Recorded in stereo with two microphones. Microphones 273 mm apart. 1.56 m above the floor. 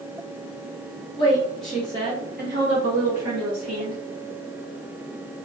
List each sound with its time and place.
1.2 s a woman speaking: 20° left (ahead or behind), 0.7 m; by 4.0 s 70° right (ahead or behind), 1.2 m